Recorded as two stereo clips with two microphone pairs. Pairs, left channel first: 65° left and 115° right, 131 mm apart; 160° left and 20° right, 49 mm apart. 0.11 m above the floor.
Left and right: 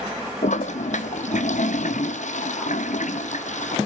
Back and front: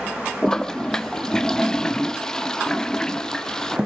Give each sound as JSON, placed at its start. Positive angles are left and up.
{"t": 0.4, "sound": "a toilet flushing", "azimuth_deg": 85, "distance_m": 0.7}